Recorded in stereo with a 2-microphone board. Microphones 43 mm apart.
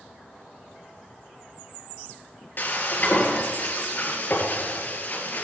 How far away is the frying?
About 2 m.